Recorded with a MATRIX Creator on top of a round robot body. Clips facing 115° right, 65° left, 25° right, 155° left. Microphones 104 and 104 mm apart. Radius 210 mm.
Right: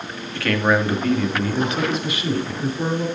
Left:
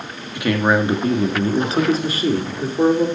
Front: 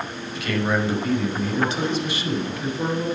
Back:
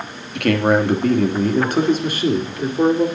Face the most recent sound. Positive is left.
turn(degrees=115)